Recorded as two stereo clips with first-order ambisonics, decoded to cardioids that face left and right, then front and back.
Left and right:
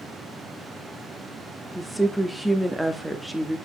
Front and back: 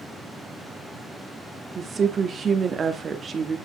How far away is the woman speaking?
About 0.7 m.